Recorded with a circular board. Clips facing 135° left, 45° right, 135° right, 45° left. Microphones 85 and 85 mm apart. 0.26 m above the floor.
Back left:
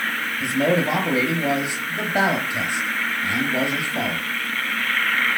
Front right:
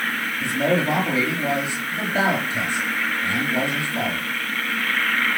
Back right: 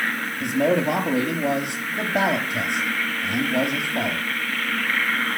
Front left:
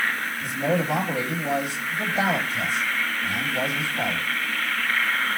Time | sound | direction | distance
0.4 | a man speaking | 150° right | 6 m